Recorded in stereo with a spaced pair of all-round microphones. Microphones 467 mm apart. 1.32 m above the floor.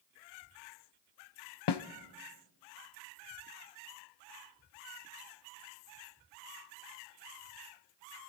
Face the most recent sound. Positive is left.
turn(degrees=60)  # may be behind; listen again after turning